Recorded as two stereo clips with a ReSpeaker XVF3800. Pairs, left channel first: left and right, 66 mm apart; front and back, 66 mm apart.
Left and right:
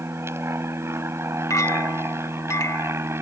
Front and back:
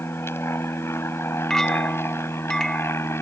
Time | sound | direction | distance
0.0 | an aircraft | 45° right | ?
1.5 | a clink | 80° left | ?